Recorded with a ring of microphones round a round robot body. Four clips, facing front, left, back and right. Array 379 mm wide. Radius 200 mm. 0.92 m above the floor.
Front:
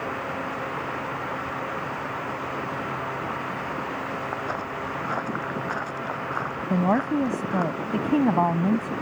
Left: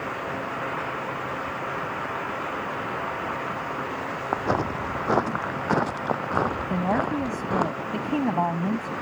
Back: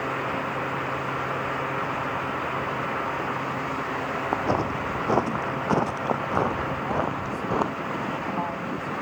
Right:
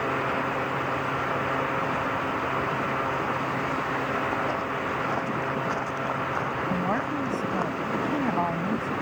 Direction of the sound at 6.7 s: 10° left.